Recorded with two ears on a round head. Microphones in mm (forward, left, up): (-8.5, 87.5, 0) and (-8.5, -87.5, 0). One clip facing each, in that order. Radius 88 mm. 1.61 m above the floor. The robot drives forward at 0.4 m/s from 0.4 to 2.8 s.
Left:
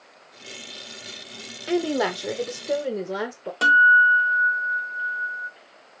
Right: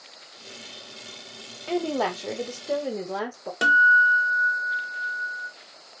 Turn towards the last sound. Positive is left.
turn(degrees=-20)  # may be behind; listen again after turning